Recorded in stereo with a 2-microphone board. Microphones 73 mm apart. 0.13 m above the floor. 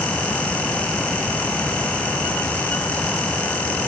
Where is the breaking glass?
No breaking glass in this recording.